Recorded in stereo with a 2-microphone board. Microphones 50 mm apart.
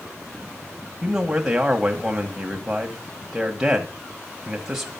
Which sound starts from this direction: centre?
A man speaking, at 1.0 s.